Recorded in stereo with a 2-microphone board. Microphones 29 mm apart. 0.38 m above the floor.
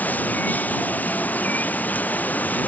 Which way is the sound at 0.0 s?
80° left.